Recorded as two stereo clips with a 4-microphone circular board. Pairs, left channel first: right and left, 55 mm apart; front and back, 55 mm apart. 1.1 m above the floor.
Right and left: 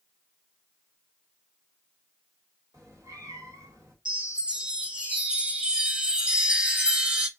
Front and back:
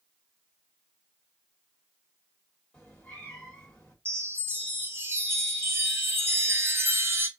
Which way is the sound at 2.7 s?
75° left.